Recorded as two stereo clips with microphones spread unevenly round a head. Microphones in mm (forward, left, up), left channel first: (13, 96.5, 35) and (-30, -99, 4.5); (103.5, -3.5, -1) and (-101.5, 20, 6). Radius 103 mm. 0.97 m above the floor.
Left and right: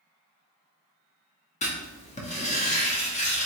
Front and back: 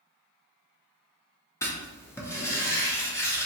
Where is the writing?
50° left, 0.8 m.